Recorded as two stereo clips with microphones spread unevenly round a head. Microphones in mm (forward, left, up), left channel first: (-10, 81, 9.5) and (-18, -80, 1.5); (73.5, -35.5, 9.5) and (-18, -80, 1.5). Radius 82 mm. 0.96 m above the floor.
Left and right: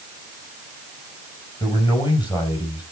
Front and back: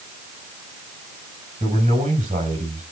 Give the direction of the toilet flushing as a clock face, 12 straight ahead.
No toilet flushing in this recording.